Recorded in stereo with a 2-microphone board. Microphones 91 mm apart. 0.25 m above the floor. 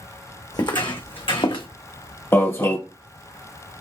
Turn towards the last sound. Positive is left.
turn(degrees=30)  # may be behind; listen again after turning